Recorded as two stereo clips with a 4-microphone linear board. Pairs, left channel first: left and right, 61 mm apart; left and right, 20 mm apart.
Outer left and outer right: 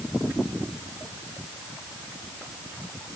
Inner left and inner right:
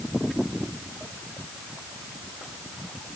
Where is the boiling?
No boiling in this recording.